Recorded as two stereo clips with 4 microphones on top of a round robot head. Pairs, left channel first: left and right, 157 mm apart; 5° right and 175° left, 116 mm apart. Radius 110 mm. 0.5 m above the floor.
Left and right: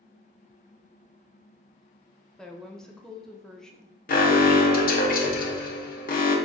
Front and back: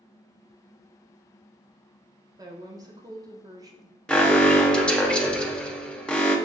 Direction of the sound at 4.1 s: 80° left.